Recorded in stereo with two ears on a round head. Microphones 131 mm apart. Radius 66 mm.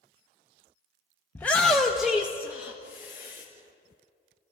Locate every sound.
1.4 s a shout: 15° left (ahead or behind), 0.8 m; by 3.5 s 15° right (ahead or behind), 2 m